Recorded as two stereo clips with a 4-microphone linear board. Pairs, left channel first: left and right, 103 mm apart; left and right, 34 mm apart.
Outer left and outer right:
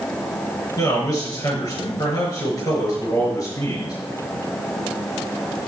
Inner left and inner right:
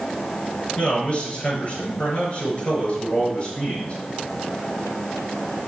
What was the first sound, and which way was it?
A man speaking, 35° left (ahead or behind).